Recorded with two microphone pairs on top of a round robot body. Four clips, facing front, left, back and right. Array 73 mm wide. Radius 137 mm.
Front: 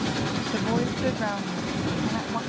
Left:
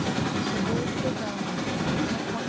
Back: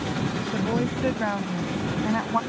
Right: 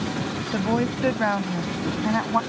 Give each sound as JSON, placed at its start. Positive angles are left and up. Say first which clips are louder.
{"t": 0.5, "sound": "a woman speaking", "louder": "right 4 dB, back 1 dB", "azimuth_deg": -75}